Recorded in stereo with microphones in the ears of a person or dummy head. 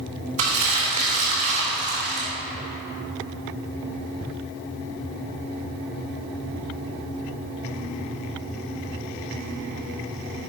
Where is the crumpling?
40° right (ahead or behind), 3 m.